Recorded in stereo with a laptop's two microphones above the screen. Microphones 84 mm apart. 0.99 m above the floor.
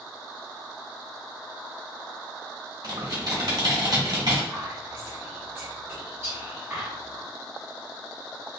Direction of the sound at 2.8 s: 60° right (ahead or behind).